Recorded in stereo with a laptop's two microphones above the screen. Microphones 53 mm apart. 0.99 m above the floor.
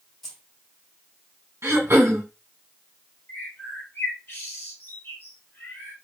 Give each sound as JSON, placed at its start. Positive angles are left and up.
{"t": 0.2, "sound": "keys jangling", "side_deg": 5, "distance_m": 0.9}
{"t": 1.6, "sound": "throat clearing", "side_deg": -50, "distance_m": 1.7}
{"t": 3.3, "sound": "a bird", "side_deg": 40, "distance_m": 1.1}